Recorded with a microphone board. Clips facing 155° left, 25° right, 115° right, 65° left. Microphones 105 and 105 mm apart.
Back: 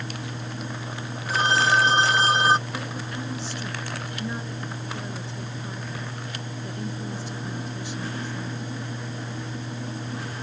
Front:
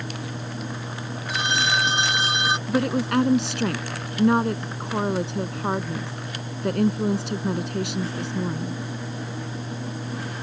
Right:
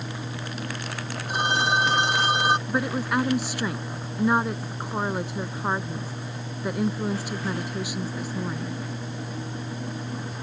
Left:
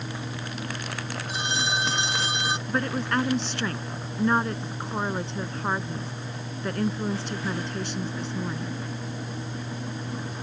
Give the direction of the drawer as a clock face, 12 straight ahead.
I don't hear a drawer.